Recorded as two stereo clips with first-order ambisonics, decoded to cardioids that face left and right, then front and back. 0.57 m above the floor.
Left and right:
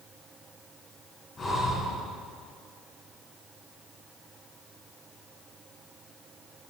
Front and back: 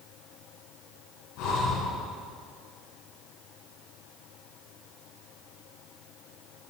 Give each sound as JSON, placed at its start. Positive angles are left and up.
{"t": 1.4, "sound": "breathing", "azimuth_deg": 15, "distance_m": 5.5}